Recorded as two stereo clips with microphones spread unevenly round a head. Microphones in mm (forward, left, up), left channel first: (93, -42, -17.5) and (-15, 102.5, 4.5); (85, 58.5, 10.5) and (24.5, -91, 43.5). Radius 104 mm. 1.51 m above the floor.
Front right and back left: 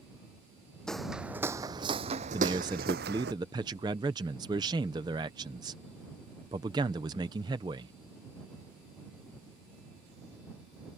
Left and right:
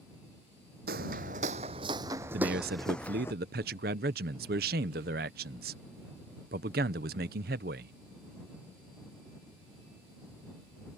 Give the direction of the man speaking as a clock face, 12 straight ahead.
5 o'clock.